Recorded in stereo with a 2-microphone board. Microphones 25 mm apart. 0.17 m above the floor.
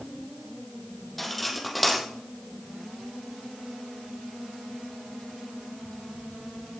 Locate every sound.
1.2 s cutlery clinking: 5° left (ahead or behind), 4 m